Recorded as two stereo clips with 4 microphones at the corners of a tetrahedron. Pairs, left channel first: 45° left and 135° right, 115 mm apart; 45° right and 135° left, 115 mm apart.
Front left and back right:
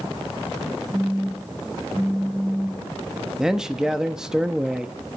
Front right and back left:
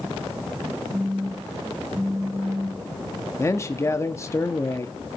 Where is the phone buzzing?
150° left, 1.0 m.